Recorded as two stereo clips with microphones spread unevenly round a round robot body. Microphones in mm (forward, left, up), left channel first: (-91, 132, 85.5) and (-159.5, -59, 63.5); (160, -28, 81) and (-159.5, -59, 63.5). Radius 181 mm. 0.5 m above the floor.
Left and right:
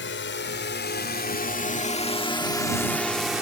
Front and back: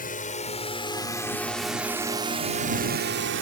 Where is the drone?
70° left; by 3.4 s 175° left.